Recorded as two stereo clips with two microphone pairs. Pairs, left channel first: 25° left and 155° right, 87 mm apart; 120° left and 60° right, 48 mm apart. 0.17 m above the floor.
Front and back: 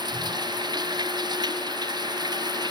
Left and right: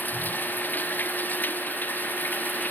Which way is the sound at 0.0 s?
170° left.